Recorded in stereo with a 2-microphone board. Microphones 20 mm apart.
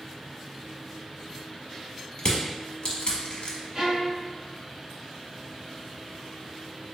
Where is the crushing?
60° left (ahead or behind), 0.8 m.